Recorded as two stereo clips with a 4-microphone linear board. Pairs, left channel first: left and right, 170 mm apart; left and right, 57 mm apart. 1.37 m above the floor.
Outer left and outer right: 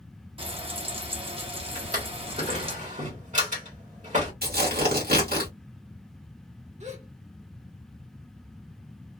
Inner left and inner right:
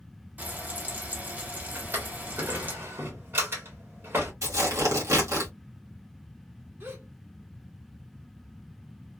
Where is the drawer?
50° right (ahead or behind), 1.6 m.